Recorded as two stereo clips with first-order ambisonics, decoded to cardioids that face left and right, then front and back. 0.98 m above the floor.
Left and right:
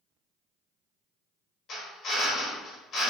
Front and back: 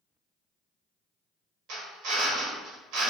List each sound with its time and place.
1.7 s a drill: 150° left, 1.0 m